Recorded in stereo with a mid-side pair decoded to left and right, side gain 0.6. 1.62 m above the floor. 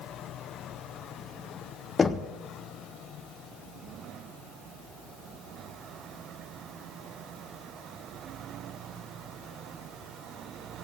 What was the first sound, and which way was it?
Knocking, 25° left.